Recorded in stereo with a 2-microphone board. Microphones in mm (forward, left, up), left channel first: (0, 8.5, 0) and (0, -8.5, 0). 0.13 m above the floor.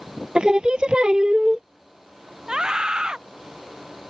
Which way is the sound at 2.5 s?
50° right (ahead or behind).